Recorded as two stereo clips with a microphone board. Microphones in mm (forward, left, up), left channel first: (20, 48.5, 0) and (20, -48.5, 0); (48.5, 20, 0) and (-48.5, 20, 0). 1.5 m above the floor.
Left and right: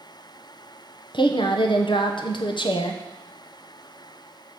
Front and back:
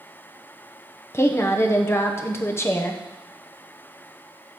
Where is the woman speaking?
60° left, 1.1 m.